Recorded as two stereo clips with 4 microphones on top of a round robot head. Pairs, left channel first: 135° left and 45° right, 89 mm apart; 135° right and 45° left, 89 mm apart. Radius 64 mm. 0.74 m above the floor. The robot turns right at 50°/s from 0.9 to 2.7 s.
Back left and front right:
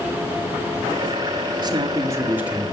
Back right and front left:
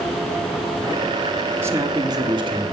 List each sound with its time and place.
1.6 s a man speaking: 15° right, 2 m; by 2.6 s 35° left, 2 m